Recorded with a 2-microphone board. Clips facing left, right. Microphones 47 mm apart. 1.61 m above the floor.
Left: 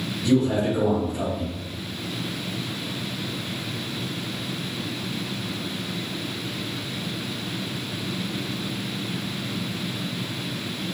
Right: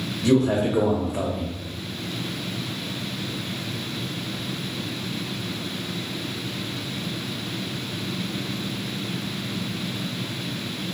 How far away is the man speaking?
About 1.5 m.